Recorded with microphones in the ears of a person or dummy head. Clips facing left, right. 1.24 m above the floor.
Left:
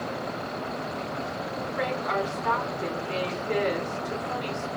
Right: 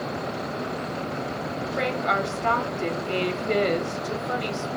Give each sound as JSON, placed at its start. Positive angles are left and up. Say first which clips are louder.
{"t": 1.8, "sound": "a woman speaking", "louder": "right 2 dB", "side_deg": -65, "distance_m": 1.7}